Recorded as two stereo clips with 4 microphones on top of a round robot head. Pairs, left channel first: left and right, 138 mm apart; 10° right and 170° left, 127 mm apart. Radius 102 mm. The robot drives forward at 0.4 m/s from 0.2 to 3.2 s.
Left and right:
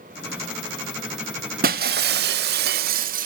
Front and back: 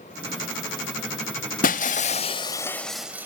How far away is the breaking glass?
About 0.7 m.